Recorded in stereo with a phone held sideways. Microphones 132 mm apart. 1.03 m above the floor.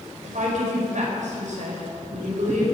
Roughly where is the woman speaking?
Right.